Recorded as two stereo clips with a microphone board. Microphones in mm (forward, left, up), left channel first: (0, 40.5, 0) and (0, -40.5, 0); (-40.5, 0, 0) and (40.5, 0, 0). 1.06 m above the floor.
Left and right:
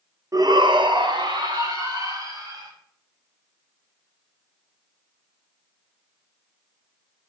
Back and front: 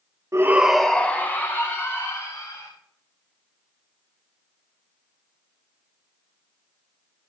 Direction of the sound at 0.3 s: 50° right.